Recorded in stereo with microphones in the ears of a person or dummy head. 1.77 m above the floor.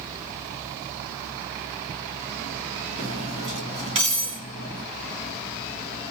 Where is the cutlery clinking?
30° right (ahead or behind), 1.5 m.